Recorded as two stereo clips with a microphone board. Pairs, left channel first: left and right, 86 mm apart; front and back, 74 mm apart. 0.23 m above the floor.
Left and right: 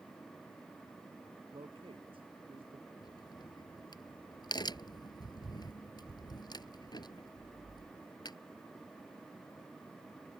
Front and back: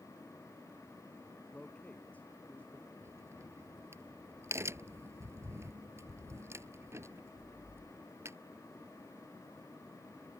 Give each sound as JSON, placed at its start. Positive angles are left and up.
{"t": 1.5, "sound": "a man speaking", "azimuth_deg": -70}
{"t": 3.0, "sound": "a crack", "azimuth_deg": 130}